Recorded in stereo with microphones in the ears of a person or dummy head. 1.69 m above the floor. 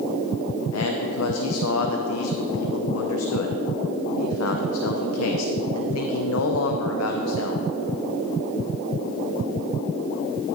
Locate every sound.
0.7 s a man speaking: 85° left, 0.7 m